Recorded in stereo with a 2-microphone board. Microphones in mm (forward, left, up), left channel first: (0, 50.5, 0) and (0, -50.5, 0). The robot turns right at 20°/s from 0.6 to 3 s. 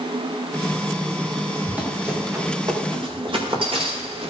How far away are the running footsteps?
About 6 m.